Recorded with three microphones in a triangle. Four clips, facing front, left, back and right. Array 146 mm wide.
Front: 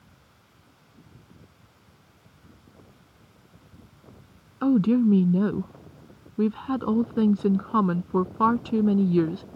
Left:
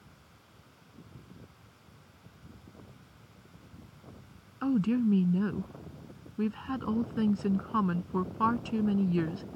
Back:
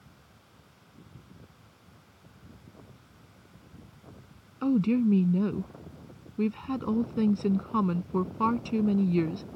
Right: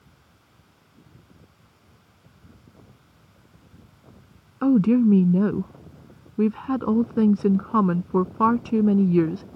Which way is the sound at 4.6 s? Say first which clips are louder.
Right 10 dB, front 4 dB; 70° right.